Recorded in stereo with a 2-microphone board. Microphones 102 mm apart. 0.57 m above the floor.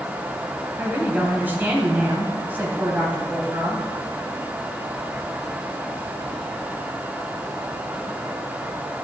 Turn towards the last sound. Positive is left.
turn(degrees=-20)  # may be behind; listen again after turning